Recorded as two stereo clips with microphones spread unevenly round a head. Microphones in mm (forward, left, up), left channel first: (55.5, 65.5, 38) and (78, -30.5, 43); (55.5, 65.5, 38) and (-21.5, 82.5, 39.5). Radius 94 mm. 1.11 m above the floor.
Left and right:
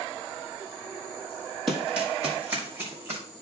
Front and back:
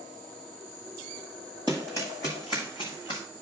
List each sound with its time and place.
1.7 s running footsteps: 90° right, 1.6 m; by 3.2 s 75° right, 3 m